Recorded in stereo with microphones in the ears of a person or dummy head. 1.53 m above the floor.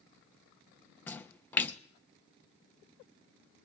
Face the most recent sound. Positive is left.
turn(degrees=15)  # may be behind; listen again after turning